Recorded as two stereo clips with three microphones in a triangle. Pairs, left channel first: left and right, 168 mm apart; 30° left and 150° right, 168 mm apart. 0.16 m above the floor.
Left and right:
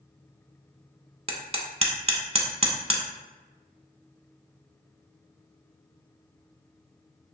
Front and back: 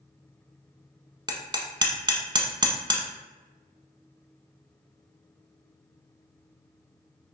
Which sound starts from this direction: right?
Hammering, at 1.3 s.